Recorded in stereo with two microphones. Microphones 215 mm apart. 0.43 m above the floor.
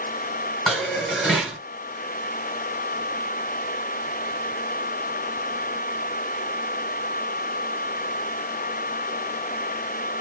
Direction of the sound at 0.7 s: Centre (ahead or behind).